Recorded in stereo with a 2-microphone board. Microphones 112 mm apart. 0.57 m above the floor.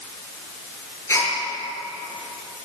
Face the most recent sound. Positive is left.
turn(degrees=25)  # may be behind; listen again after turning